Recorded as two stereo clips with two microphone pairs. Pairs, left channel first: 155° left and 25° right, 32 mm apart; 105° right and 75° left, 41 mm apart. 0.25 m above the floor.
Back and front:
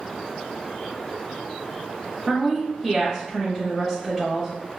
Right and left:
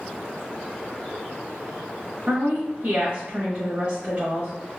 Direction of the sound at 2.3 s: 40° left.